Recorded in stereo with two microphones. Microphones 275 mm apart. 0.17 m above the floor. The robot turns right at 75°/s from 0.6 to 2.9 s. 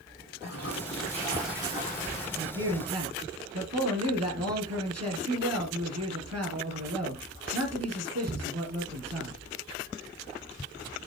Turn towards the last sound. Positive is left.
turn(degrees=-100)